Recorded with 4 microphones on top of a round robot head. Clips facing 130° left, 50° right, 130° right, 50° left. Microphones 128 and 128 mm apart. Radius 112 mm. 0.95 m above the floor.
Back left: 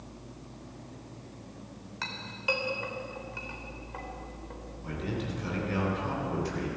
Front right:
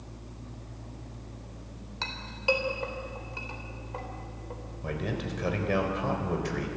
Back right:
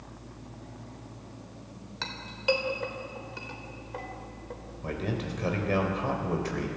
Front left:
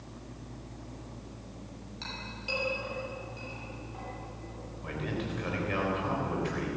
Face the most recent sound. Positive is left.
turn(degrees=-80)